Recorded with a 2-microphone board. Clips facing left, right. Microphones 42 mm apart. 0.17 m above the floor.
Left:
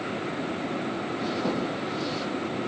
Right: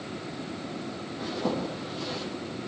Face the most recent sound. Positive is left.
turn(degrees=-5)  # may be behind; listen again after turning